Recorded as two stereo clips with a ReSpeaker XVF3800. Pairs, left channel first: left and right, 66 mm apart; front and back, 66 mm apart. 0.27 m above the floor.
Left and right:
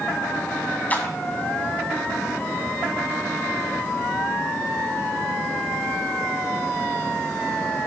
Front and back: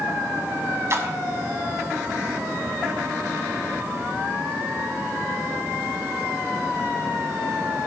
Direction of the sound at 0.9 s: 150° left.